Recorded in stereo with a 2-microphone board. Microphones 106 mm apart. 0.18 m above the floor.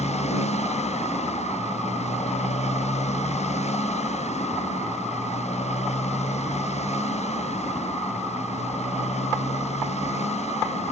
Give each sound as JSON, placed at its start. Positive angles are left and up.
{"t": 0.0, "sound": "a motorcycle", "side_deg": 80}